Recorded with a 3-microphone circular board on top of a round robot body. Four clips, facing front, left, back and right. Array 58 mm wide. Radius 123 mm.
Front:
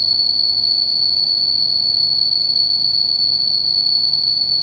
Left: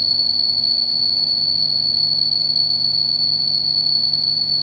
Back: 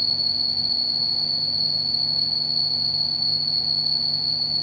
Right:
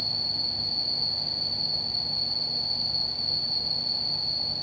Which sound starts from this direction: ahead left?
An insect, at 0.0 s.